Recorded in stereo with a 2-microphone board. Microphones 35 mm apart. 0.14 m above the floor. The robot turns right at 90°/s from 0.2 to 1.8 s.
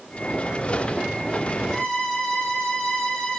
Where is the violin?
5° left (ahead or behind), 1.3 m; by 3.4 s 15° left (ahead or behind), 1.3 m.